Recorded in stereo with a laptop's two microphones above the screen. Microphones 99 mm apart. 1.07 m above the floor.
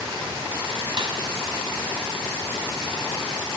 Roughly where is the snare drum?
Right.